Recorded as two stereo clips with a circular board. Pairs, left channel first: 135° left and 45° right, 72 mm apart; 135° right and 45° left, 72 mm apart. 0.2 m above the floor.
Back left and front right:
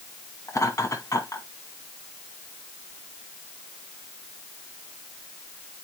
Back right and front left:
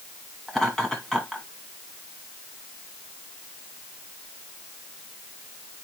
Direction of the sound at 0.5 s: 145° left.